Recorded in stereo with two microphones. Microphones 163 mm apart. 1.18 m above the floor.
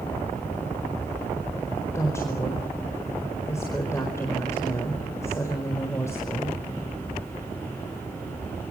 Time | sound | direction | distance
1.9 | a woman speaking | 20° left (ahead or behind) | 4 m